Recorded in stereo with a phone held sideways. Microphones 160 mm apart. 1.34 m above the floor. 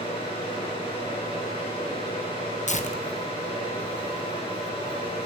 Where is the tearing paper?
45° left (ahead or behind), 1.4 m.